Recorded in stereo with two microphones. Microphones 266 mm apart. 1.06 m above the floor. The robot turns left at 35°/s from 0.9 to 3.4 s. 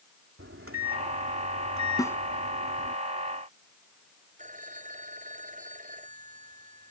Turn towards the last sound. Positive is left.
turn(degrees=-25)  # may be behind; listen again after turning